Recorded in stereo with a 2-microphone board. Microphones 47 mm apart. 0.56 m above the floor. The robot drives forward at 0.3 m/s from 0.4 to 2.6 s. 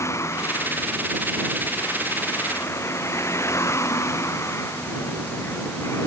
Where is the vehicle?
90° left.